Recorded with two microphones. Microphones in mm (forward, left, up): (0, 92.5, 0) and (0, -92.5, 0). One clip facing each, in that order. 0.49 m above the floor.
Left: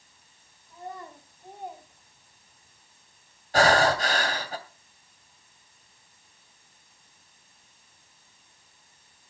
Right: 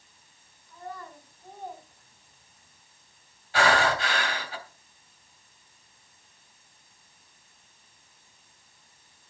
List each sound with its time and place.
0.7 s a child speaking: 25° left (ahead or behind), 3 m; by 2.8 s 15° right (ahead or behind), 1.9 m
3.5 s breathing: 45° left (ahead or behind), 2.5 m